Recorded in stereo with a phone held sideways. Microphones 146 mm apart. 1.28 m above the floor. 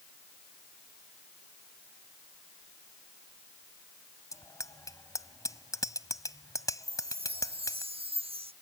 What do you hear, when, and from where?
4.3 s a bicycle bell: 20° left (ahead or behind)
6.8 s a chime: 40° right (ahead or behind)